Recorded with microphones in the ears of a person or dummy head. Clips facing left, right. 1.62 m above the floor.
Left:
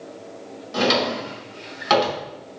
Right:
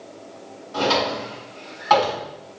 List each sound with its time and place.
0.7 s a drawer: 50° left (ahead or behind), 1.7 m